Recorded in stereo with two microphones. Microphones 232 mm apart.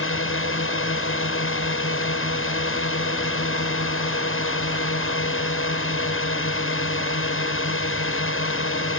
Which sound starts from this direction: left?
A drone, at 0.0 s.